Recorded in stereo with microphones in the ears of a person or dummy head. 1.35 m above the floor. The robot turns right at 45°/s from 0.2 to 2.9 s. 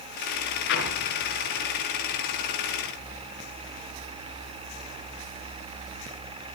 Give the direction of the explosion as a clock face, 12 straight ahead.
10 o'clock.